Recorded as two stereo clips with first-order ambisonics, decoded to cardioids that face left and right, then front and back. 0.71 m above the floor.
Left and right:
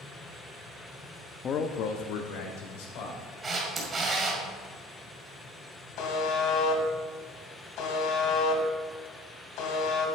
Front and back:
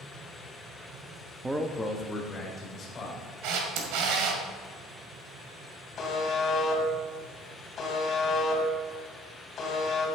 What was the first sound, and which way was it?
A man speaking, 120° left.